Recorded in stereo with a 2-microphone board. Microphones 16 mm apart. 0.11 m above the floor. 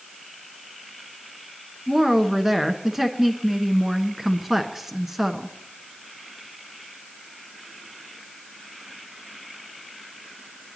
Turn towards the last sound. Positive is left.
turn(degrees=-20)  # may be behind; listen again after turning